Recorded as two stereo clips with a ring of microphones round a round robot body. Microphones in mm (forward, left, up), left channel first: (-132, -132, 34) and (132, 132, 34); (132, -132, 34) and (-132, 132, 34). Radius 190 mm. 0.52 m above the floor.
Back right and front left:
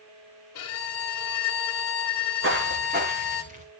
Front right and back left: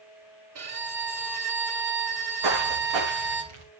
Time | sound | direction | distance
0.6 | a violin | straight behind | 2.5 m
2.4 | footsteps | 105° left | 2.5 m